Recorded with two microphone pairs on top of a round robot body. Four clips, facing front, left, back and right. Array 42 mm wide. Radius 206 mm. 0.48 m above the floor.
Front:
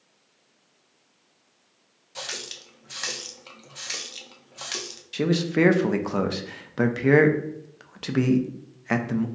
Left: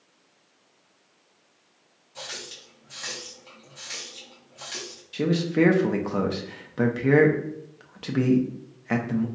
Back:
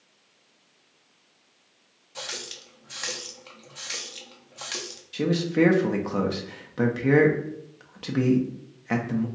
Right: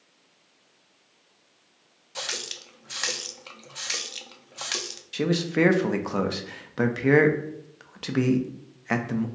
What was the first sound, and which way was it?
A running tap, 75° right.